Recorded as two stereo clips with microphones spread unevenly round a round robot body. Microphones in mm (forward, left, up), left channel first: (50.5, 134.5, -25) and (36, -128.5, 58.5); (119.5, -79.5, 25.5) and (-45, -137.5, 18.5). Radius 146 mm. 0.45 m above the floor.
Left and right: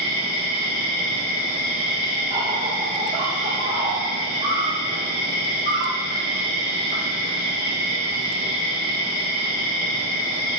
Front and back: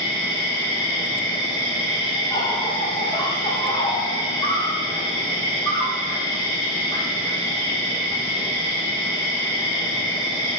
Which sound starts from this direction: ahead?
An insect, at 0.0 s.